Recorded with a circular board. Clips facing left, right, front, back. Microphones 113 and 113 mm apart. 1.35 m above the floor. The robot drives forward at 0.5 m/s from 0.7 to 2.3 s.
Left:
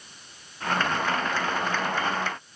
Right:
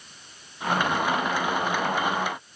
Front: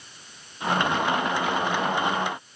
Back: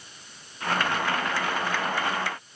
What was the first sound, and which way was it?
Only background noise.